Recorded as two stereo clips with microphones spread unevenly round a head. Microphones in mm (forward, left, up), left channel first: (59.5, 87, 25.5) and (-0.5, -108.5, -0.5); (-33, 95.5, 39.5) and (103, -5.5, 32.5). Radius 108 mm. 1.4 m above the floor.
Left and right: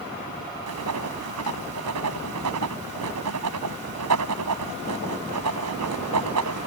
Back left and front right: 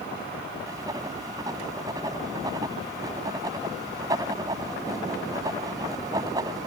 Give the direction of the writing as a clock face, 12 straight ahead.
4 o'clock.